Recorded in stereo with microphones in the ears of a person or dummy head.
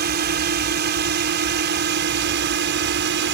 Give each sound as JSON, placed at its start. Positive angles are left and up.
{"t": 0.0, "sound": "a drone", "side_deg": -50}